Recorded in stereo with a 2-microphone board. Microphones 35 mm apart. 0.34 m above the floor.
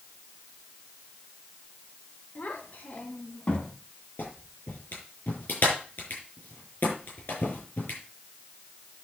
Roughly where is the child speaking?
Left.